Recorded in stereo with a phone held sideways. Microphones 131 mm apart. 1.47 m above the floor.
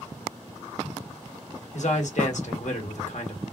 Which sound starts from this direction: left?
A man speaking, at 1.7 s.